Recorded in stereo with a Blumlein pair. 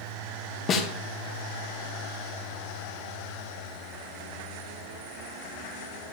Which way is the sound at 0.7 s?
25° left.